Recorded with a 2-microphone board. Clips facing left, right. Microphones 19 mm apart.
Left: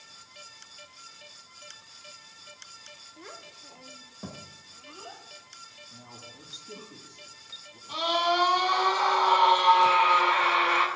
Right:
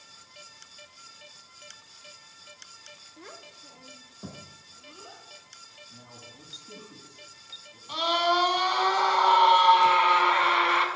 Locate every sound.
3.2 s a child speaking: centre (ahead or behind), 0.6 m; by 6.9 s 30° left (ahead or behind), 1.9 m
5.9 s a man speaking: 30° left (ahead or behind), 4 m
7.9 s a scream: 15° right (ahead or behind), 3.5 m